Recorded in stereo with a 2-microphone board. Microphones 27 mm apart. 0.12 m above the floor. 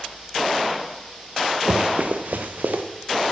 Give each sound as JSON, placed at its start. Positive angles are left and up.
{"t": 1.7, "sound": "running footsteps", "side_deg": -35, "distance_m": 1.0}